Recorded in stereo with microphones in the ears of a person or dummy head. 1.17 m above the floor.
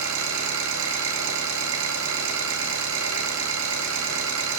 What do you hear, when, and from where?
0.0 s an engine running: 80° right, 8.5 m